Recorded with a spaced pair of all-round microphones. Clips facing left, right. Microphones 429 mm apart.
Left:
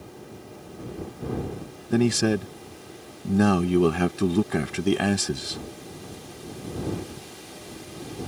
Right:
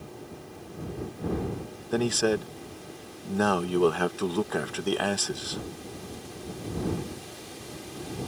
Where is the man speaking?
40° left (ahead or behind).